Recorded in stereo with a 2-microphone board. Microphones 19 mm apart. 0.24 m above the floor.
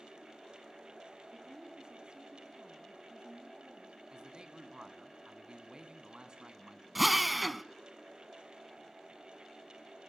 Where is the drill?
Centre (ahead or behind), 0.7 m.